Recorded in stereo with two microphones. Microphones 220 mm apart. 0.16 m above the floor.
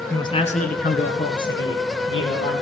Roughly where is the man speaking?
Centre.